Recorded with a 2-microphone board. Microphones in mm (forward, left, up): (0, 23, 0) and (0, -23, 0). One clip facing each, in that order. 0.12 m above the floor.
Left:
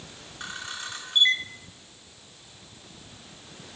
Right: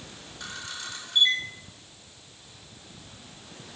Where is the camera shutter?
35° left (ahead or behind), 0.6 m.